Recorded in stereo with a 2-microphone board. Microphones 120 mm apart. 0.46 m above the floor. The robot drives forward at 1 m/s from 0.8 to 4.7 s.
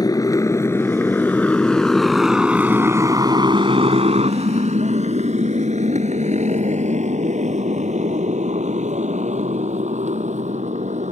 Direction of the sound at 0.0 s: 35° left (ahead or behind).